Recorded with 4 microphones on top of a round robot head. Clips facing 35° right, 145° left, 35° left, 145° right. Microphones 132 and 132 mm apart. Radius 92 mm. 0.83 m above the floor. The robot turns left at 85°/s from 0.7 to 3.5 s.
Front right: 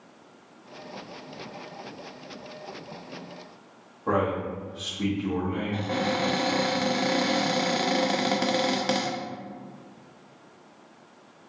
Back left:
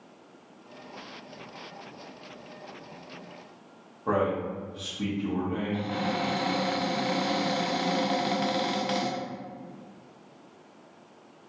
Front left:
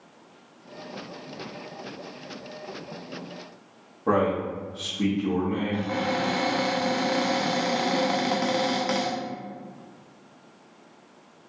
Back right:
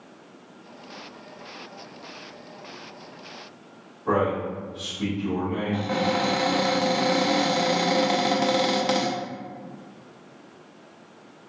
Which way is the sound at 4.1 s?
70° left.